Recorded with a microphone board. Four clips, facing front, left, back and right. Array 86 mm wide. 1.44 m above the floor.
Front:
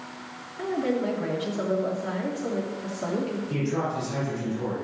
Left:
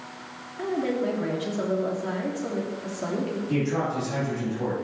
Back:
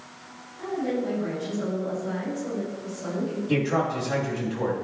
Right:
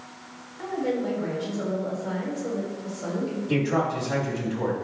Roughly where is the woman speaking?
Ahead left.